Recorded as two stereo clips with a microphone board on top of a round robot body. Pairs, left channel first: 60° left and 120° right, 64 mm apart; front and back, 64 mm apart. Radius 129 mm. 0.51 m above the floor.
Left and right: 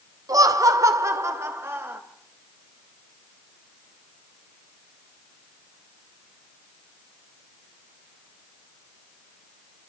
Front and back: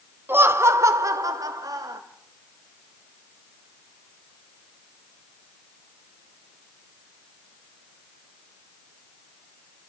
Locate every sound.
0.3 s laughter: 130° right, 1.6 m; by 2.0 s 170° right, 3 m